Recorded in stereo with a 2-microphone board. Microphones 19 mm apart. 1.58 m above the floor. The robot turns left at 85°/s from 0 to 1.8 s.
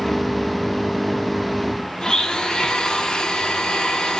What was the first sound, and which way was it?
A blender, 40° left (ahead or behind).